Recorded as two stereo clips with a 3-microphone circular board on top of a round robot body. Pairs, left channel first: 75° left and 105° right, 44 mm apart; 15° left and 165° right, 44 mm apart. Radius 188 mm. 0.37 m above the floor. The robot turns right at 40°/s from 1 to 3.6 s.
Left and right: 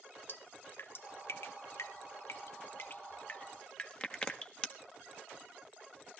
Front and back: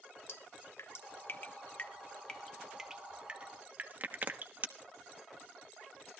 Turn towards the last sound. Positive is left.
turn(degrees=140)